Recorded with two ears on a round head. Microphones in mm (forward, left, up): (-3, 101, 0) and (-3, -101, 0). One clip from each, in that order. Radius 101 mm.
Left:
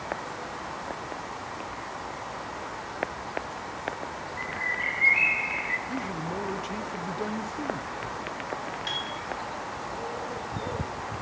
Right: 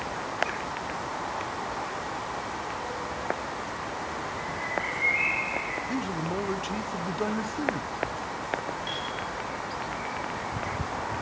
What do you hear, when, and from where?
4.4 s a bird: 50° left (ahead or behind), 3.5 m
5.9 s a man speaking: 10° right (ahead or behind), 1.2 m
8.9 s a piano: 40° left (ahead or behind), 7.5 m